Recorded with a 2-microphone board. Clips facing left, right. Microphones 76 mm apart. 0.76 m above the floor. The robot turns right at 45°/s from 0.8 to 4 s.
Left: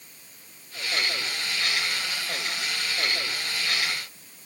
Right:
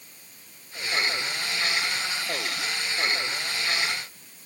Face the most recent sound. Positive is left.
No sound to turn to.